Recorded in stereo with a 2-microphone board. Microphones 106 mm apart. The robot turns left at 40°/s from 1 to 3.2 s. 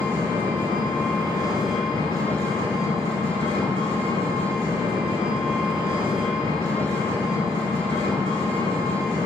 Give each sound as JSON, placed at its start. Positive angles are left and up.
{"t": 0.0, "sound": "an engine running", "azimuth_deg": 160, "distance_m": 1.9}